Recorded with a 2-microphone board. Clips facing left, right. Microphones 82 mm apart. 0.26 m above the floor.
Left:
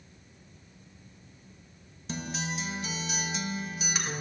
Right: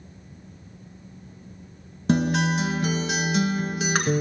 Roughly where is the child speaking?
No child speaking in this recording.